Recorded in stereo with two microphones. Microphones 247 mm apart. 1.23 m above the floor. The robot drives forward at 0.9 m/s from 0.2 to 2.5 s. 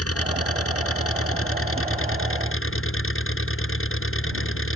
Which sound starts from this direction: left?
An engine running, at 0.0 s.